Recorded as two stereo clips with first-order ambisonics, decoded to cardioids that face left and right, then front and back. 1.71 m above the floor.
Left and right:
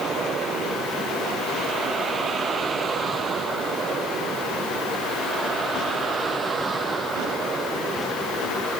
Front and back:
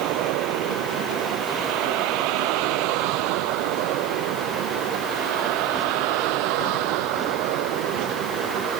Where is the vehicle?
155° right; by 8.8 s 160° right.